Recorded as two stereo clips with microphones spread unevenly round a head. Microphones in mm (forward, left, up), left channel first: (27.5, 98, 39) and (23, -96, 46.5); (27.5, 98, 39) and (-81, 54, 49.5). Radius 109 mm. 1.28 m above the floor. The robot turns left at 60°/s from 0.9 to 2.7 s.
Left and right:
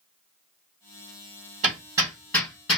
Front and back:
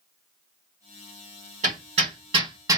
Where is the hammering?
145° right, 1.6 m; by 2.8 s 155° left, 1.6 m.